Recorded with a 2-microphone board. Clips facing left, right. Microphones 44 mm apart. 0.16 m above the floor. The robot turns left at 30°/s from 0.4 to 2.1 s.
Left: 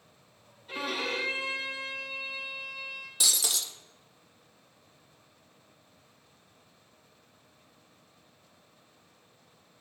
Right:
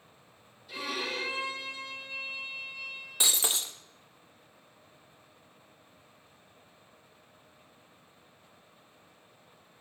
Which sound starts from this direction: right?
Breaking glass, at 3.2 s.